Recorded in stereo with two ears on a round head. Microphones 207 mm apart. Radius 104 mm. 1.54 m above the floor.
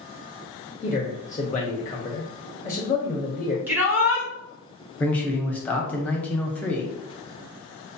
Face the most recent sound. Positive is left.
turn(degrees=5)  # may be behind; listen again after turning